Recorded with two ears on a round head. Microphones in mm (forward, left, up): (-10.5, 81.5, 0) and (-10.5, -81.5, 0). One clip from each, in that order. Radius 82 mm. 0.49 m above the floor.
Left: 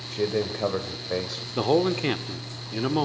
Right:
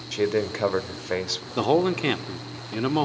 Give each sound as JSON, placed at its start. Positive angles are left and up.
{"t": 0.1, "sound": "a man speaking", "side_deg": -60, "distance_m": 1.8}
{"t": 1.6, "sound": "a man speaking", "side_deg": -20, "distance_m": 0.9}